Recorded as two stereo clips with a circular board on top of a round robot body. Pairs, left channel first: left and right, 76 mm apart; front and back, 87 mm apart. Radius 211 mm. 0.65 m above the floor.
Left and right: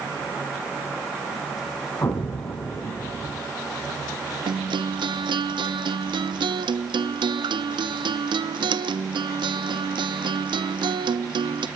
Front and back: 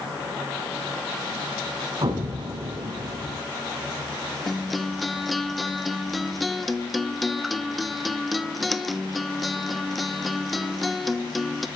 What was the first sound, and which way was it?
An explosion, 150° left.